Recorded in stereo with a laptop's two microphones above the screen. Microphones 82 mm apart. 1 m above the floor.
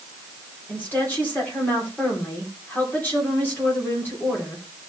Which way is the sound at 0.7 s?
20° left (ahead or behind).